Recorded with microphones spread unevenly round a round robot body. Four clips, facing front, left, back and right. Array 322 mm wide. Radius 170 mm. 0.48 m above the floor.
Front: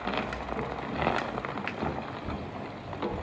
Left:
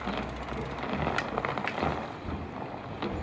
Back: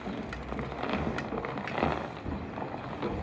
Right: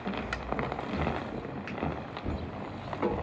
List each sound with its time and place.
1.7 s a finger snap: 45° left, 0.7 m